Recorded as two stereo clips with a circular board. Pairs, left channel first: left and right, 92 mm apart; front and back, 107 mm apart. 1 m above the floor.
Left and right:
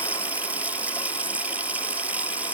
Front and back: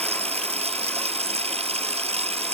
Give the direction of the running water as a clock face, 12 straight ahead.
5 o'clock.